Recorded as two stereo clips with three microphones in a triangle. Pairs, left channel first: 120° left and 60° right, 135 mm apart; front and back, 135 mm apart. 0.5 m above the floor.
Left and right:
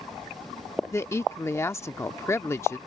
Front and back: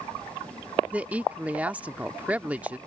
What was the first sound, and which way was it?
A woman speaking, 125° left.